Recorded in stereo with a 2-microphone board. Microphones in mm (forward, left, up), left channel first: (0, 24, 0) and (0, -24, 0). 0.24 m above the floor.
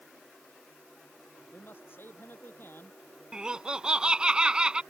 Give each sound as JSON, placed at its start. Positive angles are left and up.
{"t": 1.5, "sound": "a man speaking", "side_deg": 50}
{"t": 3.3, "sound": "laughter", "side_deg": -15}